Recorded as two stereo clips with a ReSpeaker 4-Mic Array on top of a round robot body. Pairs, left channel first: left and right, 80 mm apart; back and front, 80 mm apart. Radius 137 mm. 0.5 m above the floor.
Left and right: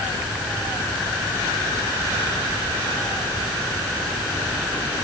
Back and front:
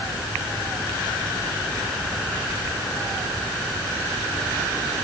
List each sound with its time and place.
Only background noise.